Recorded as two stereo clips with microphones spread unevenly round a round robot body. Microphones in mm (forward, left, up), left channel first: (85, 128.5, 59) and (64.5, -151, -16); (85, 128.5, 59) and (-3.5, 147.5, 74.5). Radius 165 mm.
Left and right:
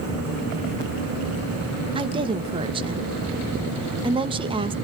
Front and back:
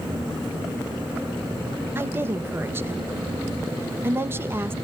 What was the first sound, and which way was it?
A woman speaking, 130° right.